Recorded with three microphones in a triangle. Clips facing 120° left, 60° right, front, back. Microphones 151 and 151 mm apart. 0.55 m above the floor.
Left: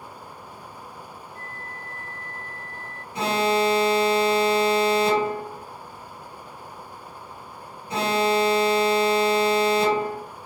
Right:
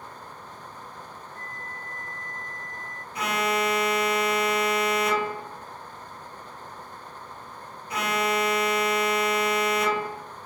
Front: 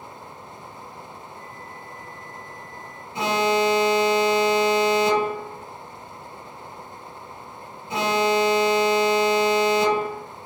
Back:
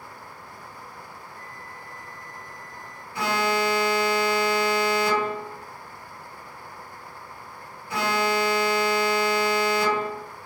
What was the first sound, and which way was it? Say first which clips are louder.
A flute: left 1 dB, front 3 dB; 85° right.